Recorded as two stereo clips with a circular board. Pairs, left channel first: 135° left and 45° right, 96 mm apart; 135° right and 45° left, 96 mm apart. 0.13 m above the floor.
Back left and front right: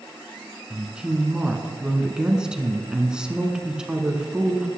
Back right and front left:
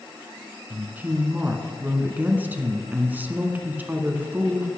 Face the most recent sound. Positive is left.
turn(degrees=20)